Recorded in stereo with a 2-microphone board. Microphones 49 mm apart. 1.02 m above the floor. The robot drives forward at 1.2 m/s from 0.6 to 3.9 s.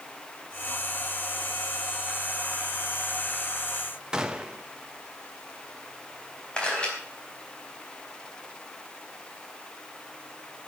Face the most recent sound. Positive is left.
turn(degrees=20)  # may be behind; listen again after turning